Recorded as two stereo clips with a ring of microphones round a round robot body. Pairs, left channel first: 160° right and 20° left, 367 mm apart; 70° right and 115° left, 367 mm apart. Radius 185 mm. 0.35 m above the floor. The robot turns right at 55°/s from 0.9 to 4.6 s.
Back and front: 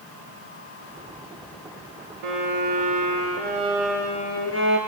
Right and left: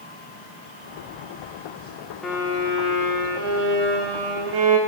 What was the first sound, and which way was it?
A violin, 20° left.